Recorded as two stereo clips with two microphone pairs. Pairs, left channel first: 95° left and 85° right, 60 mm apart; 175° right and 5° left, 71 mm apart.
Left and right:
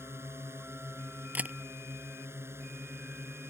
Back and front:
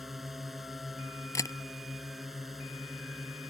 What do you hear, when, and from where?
0.0 s a drone: 80° right
1.4 s a camera shutter: 145° right